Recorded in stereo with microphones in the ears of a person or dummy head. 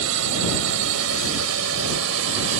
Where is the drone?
80° right; by 2.6 s 75° right (ahead or behind).